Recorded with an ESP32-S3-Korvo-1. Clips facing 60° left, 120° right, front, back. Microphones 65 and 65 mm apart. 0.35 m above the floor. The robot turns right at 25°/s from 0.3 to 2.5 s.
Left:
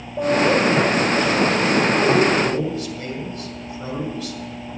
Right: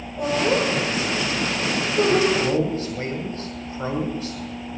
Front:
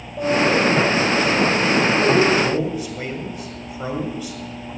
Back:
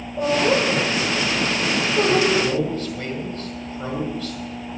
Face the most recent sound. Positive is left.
turn(degrees=-75)